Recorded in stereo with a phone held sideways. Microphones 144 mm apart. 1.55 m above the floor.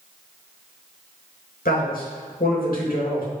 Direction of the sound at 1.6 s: 85° left.